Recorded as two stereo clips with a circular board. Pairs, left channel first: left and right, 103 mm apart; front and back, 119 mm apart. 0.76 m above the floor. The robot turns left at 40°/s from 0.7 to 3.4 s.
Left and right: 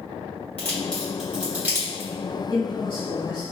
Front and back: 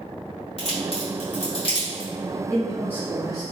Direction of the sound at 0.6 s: 15° left.